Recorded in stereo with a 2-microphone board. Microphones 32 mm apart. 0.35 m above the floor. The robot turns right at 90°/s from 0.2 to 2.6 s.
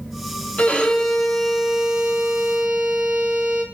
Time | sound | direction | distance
0.6 | a violin | 110° left | 2.0 m